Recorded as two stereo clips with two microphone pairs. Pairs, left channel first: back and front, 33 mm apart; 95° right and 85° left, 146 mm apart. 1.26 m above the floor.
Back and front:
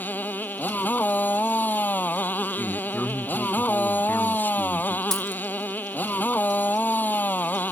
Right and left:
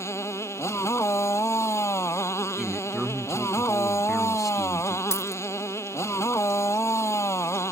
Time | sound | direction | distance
0.0 | a motorcycle | 165° right | ?
2.6 | a man speaking | 175° left | ?
5.1 | a dropped coin | 125° right | ?